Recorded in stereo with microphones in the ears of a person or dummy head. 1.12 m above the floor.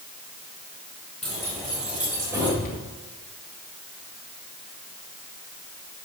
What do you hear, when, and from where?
1.2 s keys jangling: centre (ahead or behind), 4.5 m; by 2.5 s 20° right (ahead or behind), 3.5 m
2.6 s a cupboard door: 45° left (ahead or behind), 2.5 m